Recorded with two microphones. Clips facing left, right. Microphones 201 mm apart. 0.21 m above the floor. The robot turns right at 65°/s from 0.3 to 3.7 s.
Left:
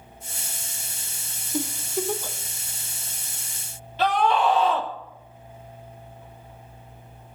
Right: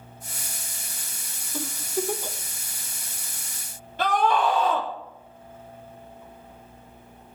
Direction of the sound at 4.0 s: 50° right (ahead or behind).